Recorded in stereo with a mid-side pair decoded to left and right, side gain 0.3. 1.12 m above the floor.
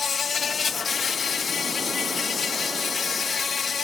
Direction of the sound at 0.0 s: 60° left.